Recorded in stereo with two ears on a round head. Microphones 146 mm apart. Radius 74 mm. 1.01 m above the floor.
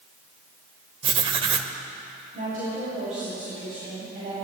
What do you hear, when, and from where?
1.0 s writing: 35° right (ahead or behind), 0.9 m
2.3 s a woman speaking: 50° right (ahead or behind), 7 m